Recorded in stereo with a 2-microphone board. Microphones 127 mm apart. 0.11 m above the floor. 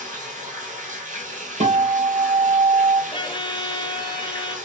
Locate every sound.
0.0 s running water: 75° right (ahead or behind), 1.4 m
1.6 s a guitar: 55° right (ahead or behind), 0.9 m
3.1 s a violin: 35° left (ahead or behind), 0.6 m